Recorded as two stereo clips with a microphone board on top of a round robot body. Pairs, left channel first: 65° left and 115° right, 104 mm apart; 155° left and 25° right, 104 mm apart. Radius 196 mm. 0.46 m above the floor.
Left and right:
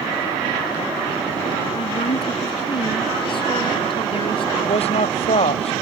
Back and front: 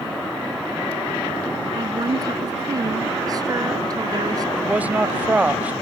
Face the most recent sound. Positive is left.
turn(degrees=55)